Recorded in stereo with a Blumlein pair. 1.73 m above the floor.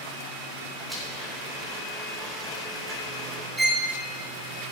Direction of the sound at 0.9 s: 5° right.